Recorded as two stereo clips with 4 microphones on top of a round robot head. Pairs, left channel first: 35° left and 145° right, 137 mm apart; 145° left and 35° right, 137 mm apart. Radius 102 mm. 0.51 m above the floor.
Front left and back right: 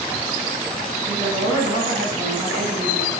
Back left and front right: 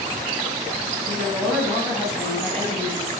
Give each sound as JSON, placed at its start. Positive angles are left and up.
{"t": 1.1, "sound": "a woman speaking", "azimuth_deg": -120, "distance_m": 5.0}